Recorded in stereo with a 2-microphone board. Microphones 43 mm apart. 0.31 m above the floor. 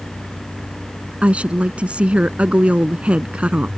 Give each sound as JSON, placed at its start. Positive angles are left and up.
{"t": 1.2, "sound": "a woman speaking", "side_deg": -30}